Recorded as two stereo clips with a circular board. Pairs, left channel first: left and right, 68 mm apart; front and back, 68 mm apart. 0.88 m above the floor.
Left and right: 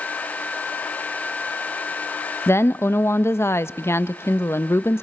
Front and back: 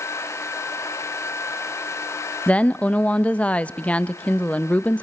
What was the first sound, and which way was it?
A woman speaking, 60° left.